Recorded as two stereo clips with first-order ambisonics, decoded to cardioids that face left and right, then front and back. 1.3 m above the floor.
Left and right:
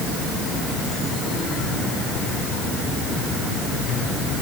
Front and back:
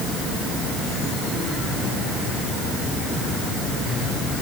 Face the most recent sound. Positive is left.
No sound to turn to.